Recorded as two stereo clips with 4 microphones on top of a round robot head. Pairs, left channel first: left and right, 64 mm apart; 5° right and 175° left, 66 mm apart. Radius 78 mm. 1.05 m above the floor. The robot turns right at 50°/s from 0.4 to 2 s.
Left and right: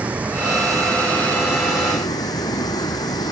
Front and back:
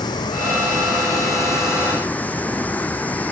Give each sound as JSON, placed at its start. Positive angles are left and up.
{"t": 0.0, "sound": "running water", "azimuth_deg": -20}